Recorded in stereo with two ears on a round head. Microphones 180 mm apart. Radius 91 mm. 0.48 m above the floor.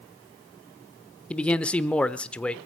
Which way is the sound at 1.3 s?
5° left (ahead or behind).